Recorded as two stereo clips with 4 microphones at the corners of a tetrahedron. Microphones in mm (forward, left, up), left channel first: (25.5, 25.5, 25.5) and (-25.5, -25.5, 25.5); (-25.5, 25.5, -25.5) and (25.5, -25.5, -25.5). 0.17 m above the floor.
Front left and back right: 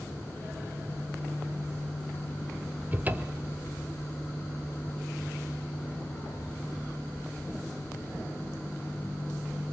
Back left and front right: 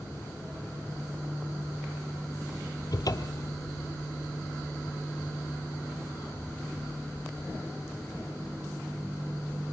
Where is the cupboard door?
160° left, 1.2 m.